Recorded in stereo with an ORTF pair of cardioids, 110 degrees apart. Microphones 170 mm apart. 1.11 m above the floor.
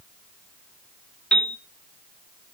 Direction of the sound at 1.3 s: 5° left.